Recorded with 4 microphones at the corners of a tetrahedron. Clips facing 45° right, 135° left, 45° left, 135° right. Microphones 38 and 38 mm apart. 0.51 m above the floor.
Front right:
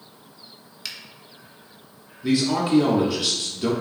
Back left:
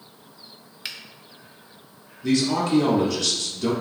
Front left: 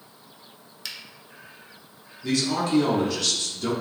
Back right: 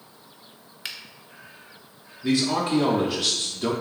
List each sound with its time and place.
0.8 s a finger snap: 175° right, 0.6 m
2.2 s a man speaking: 95° right, 0.7 m